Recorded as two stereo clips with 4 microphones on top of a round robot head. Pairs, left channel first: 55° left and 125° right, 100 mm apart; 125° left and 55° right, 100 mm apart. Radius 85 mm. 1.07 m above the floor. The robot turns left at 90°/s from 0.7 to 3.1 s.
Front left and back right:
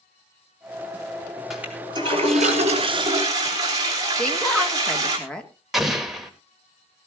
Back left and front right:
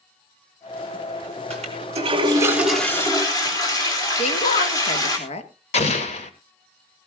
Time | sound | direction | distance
1.5 | a toilet flushing | 35° right | 4 m
4.2 | a woman speaking | 135° left | 1.8 m
5.7 | an explosion | 150° left | 1.2 m